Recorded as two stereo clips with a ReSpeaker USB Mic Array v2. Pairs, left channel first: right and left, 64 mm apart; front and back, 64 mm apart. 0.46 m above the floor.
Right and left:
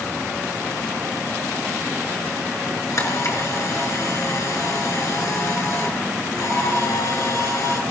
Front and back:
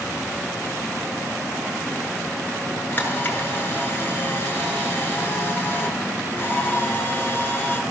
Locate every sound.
2.9 s a camera shutter: 60° right, 7 m